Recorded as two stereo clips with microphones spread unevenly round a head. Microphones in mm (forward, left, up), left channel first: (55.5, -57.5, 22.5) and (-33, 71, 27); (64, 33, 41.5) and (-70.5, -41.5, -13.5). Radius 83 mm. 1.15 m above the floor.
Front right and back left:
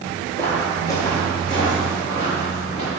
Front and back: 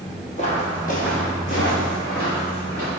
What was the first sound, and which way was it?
Footsteps, 25° left.